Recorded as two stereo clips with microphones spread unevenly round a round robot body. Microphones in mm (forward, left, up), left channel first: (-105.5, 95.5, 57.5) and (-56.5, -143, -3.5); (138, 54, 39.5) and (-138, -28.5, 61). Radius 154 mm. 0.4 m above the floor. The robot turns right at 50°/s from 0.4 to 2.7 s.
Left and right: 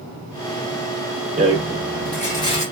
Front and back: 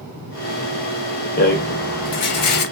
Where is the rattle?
30° right, 0.8 m; by 2.6 s 30° left, 0.8 m.